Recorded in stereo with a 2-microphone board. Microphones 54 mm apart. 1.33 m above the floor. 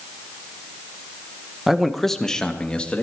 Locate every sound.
1.7 s a man speaking: 5° right (ahead or behind), 1.1 m; by 3.0 s 20° left (ahead or behind), 2 m